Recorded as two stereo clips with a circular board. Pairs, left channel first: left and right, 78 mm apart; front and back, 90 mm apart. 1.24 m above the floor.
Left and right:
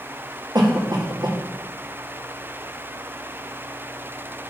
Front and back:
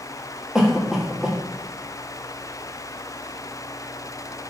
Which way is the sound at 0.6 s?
95° right.